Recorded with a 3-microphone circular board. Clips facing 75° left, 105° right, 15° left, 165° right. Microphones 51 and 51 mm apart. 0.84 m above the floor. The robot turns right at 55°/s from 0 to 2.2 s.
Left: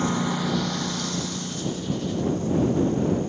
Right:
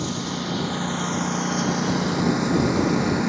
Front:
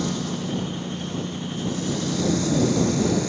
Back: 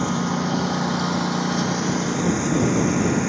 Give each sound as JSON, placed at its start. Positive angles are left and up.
{"t": 0.0, "sound": "a lawn mower", "azimuth_deg": 135}